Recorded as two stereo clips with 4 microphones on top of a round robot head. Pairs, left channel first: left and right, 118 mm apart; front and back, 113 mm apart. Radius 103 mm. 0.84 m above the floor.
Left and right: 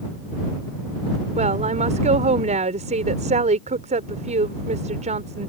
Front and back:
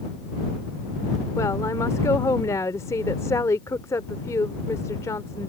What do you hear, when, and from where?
1.4 s a woman speaking: 70° right